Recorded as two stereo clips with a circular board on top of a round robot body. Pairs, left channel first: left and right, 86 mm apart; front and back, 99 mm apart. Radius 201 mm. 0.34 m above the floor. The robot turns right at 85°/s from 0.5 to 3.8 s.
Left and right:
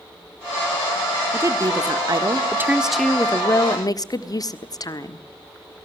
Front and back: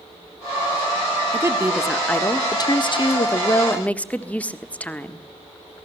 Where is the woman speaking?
140° right, 1.6 m; by 5.3 s 70° left, 1.6 m.